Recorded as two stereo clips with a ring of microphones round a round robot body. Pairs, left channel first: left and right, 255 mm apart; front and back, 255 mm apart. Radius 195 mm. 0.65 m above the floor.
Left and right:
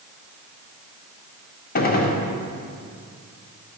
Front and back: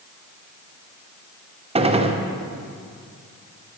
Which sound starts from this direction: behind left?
A gunshot, at 1.8 s.